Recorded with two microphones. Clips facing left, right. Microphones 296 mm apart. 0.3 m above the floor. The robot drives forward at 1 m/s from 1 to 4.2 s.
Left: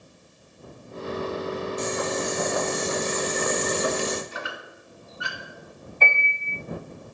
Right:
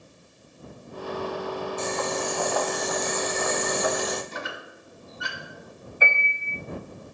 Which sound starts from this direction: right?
A squeak, at 4.3 s.